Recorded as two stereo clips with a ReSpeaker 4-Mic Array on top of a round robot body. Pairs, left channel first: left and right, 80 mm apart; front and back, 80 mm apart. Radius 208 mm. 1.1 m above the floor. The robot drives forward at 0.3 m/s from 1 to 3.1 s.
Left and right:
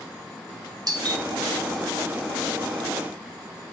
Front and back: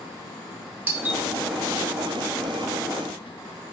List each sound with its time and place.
0.9 s a doorbell: 115° right, 1.7 m; by 1.2 s 120° right, 1.8 m